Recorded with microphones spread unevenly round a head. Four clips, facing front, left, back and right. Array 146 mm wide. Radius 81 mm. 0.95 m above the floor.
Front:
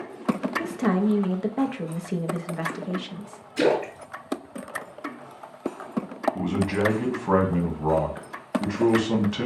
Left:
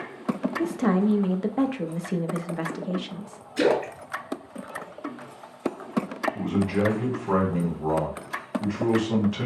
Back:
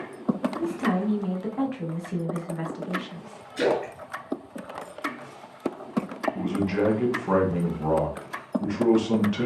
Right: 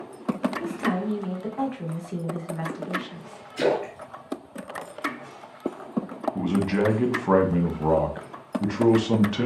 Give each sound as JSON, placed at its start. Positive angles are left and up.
{"t": 0.6, "sound": "a woman speaking", "azimuth_deg": 60, "distance_m": 0.8}
{"t": 3.6, "sound": "a splash", "azimuth_deg": 75, "distance_m": 2.5}
{"t": 6.3, "sound": "a man speaking", "azimuth_deg": -70, "distance_m": 1.2}